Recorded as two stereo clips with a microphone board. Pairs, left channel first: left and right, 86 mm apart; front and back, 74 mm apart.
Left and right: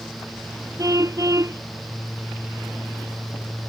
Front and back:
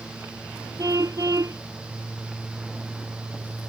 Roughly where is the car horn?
Behind right.